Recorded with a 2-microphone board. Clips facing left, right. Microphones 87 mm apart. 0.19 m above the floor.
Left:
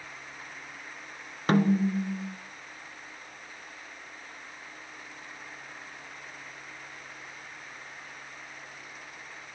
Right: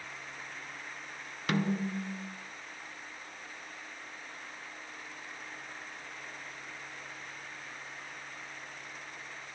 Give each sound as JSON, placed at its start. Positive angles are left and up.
{"t": 1.5, "sound": "a snare drum", "side_deg": 35, "distance_m": 1.4}